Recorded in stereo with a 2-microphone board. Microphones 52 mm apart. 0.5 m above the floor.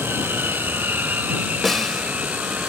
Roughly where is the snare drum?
Centre.